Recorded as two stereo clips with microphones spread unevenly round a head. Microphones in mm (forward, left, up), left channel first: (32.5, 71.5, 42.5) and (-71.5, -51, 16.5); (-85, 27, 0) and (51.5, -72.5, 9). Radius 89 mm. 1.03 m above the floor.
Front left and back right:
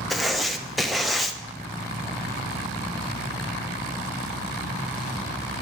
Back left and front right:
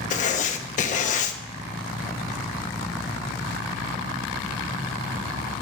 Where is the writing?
150° left, 0.6 m.